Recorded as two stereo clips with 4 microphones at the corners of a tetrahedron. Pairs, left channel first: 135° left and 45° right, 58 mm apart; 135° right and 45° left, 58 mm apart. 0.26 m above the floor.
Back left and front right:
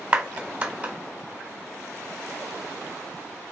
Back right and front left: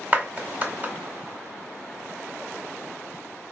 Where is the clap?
10° left, 1.4 m.